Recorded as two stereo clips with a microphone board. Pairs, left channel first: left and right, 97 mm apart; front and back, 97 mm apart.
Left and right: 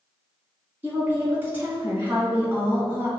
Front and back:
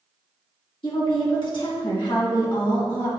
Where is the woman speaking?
20° right, 1.9 m.